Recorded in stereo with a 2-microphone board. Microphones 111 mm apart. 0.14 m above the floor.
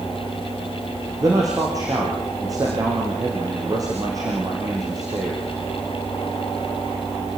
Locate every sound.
1.2 s a man speaking: 30° right (ahead or behind), 6.5 m